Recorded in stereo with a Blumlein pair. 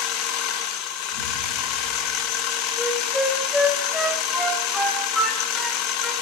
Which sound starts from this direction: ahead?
A flute, at 2.8 s.